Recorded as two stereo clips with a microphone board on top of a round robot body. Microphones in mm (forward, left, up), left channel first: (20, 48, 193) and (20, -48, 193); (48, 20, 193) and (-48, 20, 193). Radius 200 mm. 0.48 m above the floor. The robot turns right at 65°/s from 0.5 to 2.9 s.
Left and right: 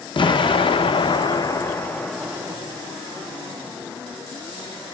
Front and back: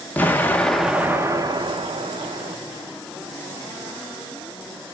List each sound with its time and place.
0.2 s an explosion: 70° left, 0.8 m; by 2.6 s 155° right, 0.8 m